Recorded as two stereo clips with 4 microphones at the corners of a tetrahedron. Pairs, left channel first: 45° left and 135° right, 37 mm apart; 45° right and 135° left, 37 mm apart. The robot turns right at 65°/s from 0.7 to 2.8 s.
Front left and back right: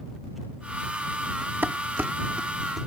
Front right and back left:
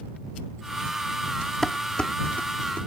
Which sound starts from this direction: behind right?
Dishes clattering, at 1.6 s.